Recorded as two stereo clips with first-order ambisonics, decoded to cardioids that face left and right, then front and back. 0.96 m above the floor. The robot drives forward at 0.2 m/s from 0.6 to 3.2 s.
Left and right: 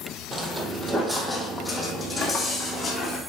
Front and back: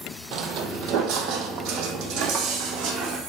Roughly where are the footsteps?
Behind.